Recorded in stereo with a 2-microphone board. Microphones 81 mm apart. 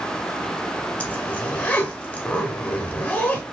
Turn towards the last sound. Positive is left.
turn(degrees=15)  # may be behind; listen again after turning